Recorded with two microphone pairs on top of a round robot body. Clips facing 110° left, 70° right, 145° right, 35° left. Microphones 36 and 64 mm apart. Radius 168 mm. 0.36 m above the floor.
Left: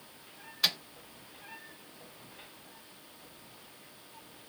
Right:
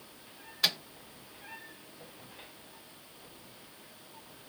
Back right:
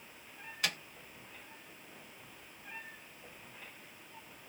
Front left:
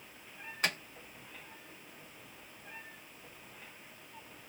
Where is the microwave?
5° left, 0.8 m.